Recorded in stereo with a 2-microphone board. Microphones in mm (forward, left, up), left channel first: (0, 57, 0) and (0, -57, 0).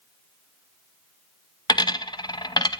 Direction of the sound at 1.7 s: 40° left (ahead or behind).